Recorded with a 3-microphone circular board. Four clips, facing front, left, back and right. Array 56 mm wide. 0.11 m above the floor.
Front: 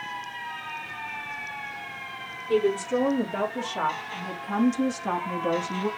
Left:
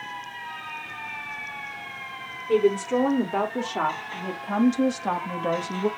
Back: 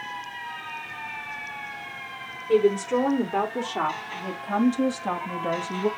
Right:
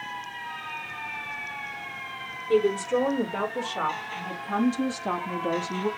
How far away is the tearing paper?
I don't hear tearing paper.